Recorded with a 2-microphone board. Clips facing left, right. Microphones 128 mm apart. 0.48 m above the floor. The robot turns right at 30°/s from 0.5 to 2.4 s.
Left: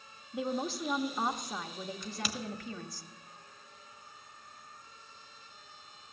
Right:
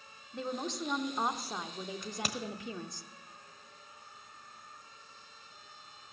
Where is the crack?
60° right (ahead or behind), 1.1 m; by 2.4 s 50° right (ahead or behind), 1.1 m.